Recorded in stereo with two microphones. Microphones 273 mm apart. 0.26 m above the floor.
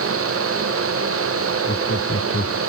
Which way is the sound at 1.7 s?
50° left (ahead or behind).